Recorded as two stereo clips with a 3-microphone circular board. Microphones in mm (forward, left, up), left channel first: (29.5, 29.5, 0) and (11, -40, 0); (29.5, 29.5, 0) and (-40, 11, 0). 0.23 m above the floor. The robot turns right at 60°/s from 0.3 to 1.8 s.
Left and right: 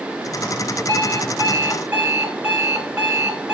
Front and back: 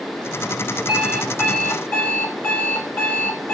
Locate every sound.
0.9 s an alarm clock: 95° right, 1.1 m; by 3.5 s 40° right, 1.1 m